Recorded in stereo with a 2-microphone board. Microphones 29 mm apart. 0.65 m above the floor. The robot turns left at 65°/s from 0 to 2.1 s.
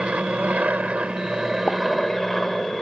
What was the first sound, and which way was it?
An aircraft, 55° right.